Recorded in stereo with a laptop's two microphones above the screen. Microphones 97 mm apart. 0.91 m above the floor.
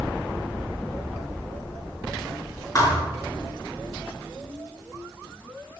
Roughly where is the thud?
Left.